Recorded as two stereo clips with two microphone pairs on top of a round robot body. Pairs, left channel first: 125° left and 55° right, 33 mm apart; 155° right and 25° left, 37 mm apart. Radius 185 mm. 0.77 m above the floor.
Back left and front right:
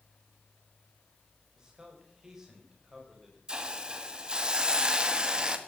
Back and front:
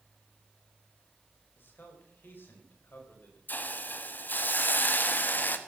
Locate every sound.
1.6 s a man speaking: 125° right, 5 m; by 3.4 s 135° right, 5.5 m
3.5 s a hiss: 120° right, 1.6 m